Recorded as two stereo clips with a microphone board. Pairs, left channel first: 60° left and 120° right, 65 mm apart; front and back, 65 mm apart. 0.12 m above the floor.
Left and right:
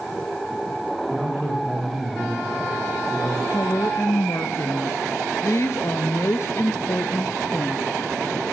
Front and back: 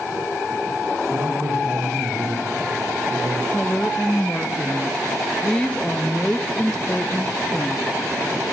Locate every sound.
1.1 s a man speaking: 145° left, 9 m; by 3.4 s 150° left, 5.5 m
3.5 s a woman speaking: 70° left, 1.5 m